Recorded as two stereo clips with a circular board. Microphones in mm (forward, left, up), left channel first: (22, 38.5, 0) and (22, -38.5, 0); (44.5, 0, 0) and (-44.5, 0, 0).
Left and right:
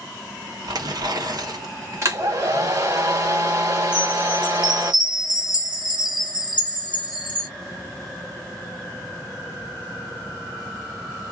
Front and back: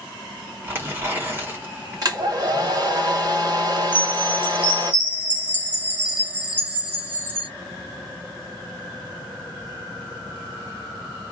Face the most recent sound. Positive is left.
turn(degrees=-105)